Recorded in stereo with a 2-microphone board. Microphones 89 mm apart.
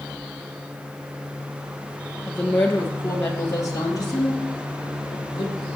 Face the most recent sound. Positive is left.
turn(degrees=55)  # may be behind; listen again after turning